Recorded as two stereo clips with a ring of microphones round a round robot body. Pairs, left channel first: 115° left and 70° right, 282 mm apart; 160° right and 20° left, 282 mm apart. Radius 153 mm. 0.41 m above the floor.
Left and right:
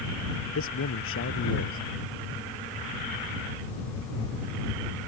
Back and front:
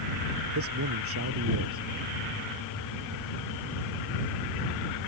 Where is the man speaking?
65° left.